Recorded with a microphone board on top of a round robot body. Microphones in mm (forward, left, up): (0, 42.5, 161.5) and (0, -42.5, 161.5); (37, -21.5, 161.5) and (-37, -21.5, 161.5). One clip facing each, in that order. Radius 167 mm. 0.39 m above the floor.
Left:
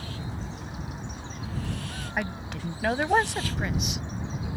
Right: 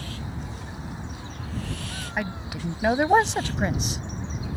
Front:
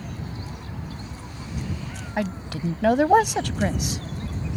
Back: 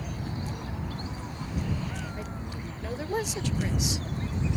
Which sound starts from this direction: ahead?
A woman speaking, at 2.2 s.